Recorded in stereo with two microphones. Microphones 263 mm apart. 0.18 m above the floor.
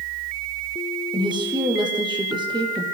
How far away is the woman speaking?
About 5.5 m.